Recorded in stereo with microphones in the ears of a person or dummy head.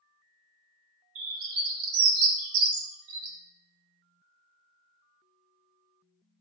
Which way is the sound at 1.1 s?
80° right.